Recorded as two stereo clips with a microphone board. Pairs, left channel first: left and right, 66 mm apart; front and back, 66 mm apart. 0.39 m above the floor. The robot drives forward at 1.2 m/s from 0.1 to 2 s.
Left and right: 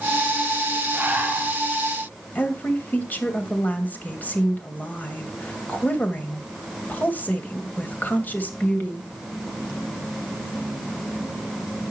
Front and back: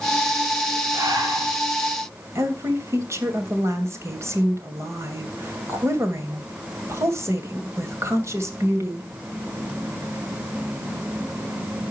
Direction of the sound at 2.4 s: 150° left.